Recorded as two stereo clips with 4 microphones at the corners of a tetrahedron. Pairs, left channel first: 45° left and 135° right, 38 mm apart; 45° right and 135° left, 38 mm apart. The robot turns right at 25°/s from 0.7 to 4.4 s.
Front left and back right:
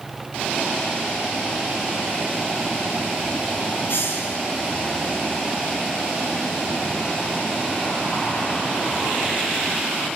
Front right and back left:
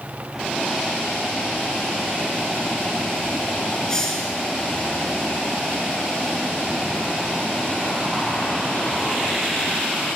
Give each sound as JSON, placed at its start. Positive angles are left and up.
{"t": 3.9, "sound": "a hiss", "azimuth_deg": 25, "distance_m": 3.5}